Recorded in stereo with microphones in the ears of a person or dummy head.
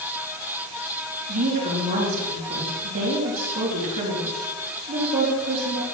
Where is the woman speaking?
50° right (ahead or behind), 3.5 m.